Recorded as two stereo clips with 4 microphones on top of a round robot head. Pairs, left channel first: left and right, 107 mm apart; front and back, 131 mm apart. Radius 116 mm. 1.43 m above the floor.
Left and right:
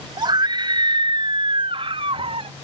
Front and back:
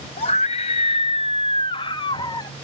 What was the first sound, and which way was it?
A scream, 45° right.